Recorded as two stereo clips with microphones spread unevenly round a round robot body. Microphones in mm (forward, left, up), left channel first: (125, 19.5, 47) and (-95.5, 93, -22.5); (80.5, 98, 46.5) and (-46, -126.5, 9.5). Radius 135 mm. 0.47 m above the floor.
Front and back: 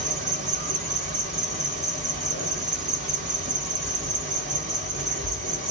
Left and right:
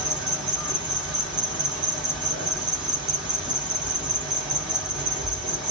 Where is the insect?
165° left, 1.8 m.